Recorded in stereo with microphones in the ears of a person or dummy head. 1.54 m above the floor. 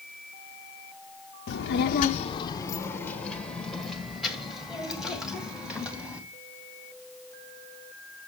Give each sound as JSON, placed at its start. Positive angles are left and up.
{"t": 1.5, "sound": "a child speaking", "side_deg": 60, "distance_m": 0.6}